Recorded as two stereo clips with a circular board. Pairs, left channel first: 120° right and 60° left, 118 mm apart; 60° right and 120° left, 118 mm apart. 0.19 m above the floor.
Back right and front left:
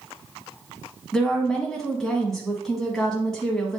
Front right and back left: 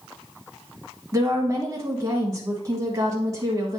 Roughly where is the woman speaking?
Behind left.